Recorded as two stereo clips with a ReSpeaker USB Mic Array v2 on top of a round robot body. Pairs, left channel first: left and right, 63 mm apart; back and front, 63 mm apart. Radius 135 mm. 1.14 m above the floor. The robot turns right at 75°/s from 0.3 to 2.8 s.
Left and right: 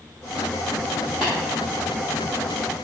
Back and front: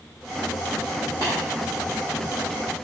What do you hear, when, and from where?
1.2 s tapping: 175° left, 0.6 m; by 1.3 s 175° right, 0.6 m